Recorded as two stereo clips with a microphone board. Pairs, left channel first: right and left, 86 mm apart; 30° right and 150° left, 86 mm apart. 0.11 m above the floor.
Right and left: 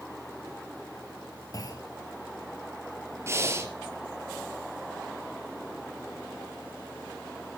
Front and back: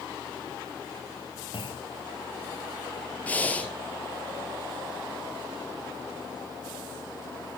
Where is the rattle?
I don't hear a rattle.